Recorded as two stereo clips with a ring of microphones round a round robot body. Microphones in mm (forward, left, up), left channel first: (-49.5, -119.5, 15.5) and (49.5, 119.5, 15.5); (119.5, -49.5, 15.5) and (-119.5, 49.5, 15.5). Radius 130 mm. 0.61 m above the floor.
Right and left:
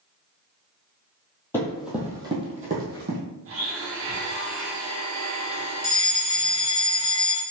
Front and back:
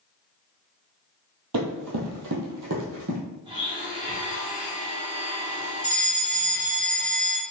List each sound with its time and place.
1.5 s running footsteps: 165° left, 1.3 m; by 3.2 s 115° left, 1.5 m
3.5 s a blender: 90° left, 1.2 m
5.8 s a fire alarm: 55° left, 1.7 m